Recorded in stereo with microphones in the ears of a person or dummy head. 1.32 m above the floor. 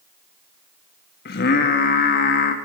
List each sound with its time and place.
1.2 s singing: 70° left (ahead or behind), 1.4 m